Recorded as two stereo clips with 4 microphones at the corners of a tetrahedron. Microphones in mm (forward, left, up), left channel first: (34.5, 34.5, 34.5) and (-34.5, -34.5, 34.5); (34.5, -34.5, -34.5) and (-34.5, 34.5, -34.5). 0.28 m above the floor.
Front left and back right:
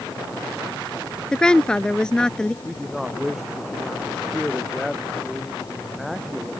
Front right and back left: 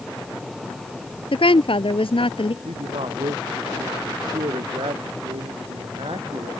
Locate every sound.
1.3 s a woman speaking: 35° right
2.6 s a man speaking: 135° left